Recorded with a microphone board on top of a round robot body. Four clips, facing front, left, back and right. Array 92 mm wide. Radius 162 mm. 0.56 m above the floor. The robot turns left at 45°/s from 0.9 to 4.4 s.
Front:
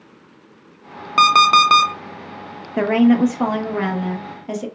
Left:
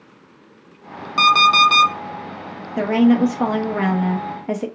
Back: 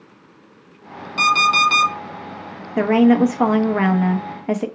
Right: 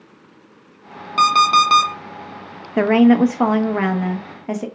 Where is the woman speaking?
100° right, 0.7 m; by 4.7 s 170° right, 0.7 m.